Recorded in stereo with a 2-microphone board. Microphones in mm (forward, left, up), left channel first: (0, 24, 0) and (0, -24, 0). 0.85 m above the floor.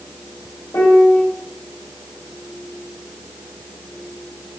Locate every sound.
0.7 s a piano: 60° left (ahead or behind), 1.2 m